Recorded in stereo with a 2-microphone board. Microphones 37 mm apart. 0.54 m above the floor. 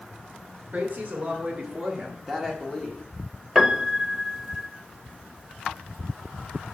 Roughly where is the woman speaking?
Right.